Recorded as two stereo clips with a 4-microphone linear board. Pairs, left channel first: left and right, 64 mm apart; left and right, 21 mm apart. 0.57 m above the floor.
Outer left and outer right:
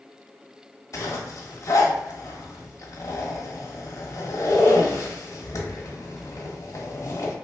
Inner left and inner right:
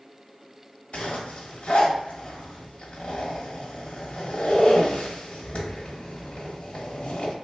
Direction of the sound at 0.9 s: 50° left (ahead or behind).